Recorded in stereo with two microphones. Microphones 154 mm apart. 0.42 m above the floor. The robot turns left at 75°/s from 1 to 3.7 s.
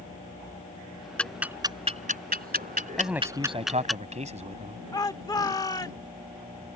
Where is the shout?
25° left (ahead or behind).